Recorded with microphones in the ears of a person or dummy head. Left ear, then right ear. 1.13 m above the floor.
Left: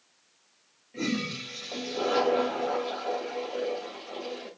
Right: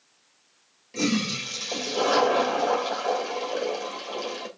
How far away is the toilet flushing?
About 3 m.